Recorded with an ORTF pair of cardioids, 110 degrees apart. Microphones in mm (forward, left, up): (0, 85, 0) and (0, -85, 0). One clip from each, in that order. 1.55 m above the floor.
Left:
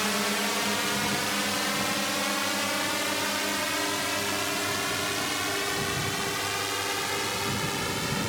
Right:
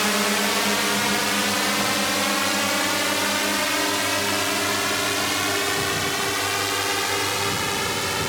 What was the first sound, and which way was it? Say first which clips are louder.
A drone: right 6 dB; 40° right.